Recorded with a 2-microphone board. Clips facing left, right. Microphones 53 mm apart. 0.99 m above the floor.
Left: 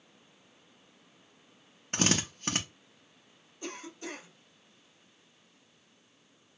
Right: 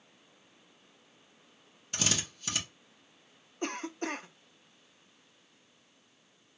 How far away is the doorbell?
No doorbell in this recording.